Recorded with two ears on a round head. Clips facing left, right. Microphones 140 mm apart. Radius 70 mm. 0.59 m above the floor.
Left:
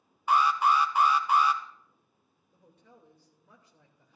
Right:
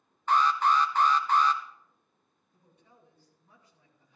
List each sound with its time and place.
0.3 s an alarm: 10° left (ahead or behind), 0.8 m
2.5 s a woman speaking: 55° left (ahead or behind), 2.5 m